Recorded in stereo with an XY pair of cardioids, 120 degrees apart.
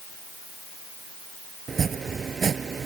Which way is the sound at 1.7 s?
35° right.